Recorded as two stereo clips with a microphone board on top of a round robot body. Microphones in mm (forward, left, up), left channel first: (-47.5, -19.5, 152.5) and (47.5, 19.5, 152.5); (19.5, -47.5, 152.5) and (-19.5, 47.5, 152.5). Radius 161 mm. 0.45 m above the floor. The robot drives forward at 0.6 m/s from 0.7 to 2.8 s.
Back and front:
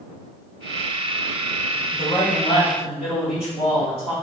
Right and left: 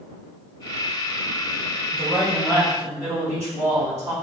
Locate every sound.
1.9 s a man speaking: 165° right, 3.5 m